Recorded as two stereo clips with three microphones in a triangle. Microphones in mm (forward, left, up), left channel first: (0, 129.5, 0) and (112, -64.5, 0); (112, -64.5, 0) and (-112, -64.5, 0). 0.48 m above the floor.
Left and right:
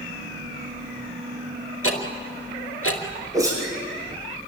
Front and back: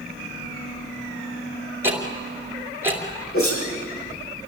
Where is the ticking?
100° left, 2.5 m.